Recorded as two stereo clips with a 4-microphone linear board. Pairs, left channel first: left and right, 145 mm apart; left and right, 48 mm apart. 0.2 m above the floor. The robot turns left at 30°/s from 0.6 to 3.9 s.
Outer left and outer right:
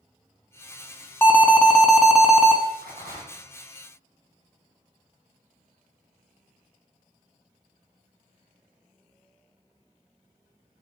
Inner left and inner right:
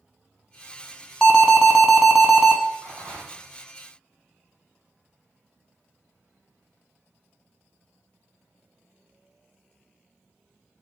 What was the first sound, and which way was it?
An alarm, 25° left.